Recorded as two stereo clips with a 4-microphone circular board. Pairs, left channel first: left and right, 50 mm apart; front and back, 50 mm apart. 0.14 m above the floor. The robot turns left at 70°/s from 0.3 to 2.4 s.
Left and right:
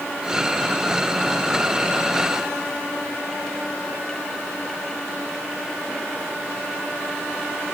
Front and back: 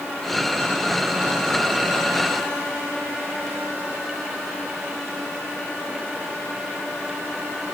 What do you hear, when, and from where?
Only background noise.